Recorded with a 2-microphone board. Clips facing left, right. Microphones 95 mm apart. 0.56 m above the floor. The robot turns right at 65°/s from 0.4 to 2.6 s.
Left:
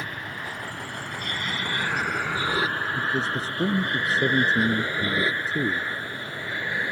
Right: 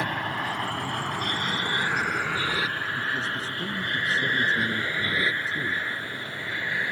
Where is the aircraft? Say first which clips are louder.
Right 6 dB; 70° right (ahead or behind); by 6.9 s 20° left (ahead or behind).